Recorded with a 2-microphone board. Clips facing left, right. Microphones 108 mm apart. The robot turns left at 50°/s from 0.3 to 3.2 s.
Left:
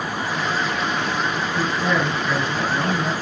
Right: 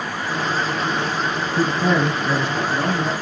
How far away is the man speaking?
About 1.9 m.